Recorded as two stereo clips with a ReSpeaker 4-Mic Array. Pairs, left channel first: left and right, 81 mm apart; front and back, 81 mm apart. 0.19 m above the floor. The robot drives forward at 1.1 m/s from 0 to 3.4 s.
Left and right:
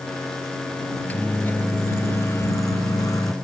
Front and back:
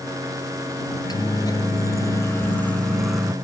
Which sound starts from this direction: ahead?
A microwave, at 0.9 s.